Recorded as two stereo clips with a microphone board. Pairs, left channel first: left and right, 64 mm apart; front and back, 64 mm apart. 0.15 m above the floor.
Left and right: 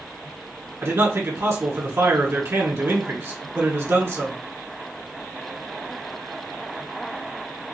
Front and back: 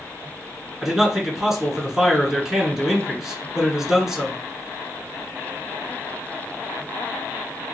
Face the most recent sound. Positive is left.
turn(degrees=-100)